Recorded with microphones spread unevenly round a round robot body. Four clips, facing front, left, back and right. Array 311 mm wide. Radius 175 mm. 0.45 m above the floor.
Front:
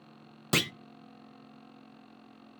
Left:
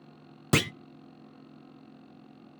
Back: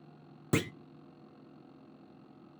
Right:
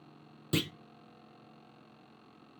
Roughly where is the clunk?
Ahead left.